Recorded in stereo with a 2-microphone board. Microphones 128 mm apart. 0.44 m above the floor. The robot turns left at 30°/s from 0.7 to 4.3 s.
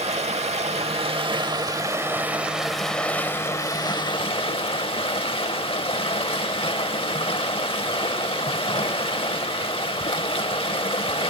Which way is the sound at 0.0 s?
120° right.